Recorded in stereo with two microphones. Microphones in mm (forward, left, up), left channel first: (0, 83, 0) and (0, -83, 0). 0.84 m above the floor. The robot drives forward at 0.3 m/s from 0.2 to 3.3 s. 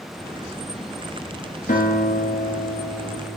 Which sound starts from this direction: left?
A guitar, at 1.7 s.